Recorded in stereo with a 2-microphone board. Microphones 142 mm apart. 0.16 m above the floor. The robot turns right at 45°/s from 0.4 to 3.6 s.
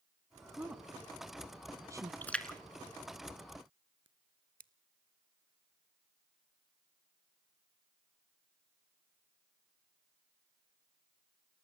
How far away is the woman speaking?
About 1.0 m.